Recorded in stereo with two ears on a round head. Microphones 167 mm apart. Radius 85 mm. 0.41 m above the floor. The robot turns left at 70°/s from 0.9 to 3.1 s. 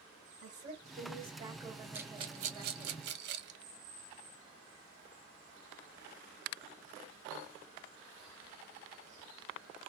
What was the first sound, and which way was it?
A woman speaking, 110° right.